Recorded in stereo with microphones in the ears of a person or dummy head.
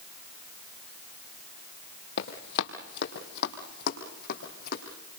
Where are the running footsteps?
60° left (ahead or behind), 3 m; by 4.8 s 50° left (ahead or behind), 5 m.